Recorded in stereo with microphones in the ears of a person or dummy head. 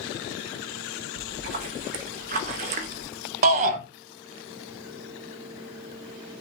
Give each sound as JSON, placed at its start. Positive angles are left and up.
{"t": 1.2, "sound": "a splash", "side_deg": -40, "distance_m": 0.7}
{"t": 3.4, "sound": "a shout", "side_deg": -45, "distance_m": 0.9}